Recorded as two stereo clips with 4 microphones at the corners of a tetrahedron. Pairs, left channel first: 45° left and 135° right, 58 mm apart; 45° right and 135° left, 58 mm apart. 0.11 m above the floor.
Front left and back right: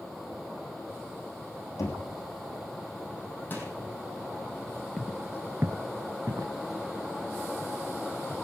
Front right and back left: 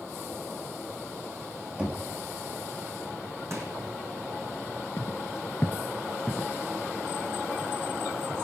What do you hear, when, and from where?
1.8 s knocking: 70° left, 3.5 m
3.5 s crushing: 100° left, 4.5 m
5.0 s footsteps: 30° right, 0.6 m; by 8.3 s 145° right, 3.5 m